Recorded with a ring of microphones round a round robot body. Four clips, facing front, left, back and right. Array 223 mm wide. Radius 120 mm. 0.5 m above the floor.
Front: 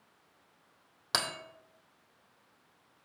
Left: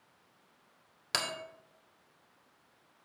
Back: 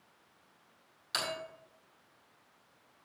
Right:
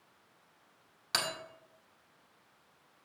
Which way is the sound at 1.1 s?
25° left.